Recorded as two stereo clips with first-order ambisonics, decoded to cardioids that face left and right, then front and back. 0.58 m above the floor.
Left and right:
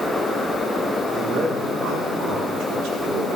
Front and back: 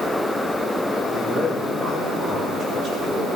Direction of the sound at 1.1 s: 130° right.